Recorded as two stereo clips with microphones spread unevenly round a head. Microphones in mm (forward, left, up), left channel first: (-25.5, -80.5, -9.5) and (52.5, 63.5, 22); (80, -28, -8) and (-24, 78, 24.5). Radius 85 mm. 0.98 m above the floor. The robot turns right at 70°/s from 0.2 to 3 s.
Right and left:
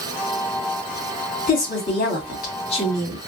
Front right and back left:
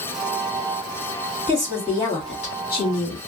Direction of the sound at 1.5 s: 155° right.